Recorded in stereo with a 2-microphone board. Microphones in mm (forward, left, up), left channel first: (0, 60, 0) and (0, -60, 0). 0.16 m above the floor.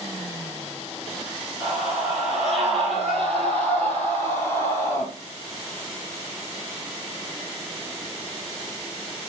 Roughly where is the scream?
Centre.